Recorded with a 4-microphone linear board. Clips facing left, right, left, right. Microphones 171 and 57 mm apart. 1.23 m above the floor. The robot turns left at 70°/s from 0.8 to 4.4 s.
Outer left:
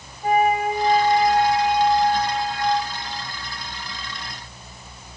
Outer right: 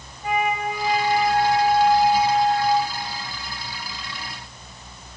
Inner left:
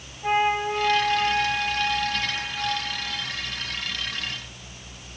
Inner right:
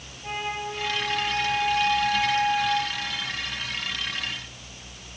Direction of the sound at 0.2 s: 75° left.